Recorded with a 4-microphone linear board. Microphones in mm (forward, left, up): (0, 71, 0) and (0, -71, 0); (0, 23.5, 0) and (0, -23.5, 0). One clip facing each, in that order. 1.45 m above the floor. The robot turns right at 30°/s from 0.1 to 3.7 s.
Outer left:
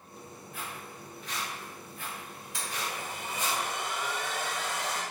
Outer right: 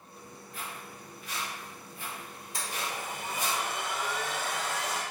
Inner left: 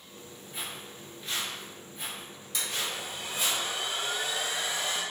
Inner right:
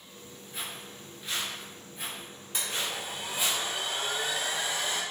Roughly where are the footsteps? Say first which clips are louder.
Even, even; centre.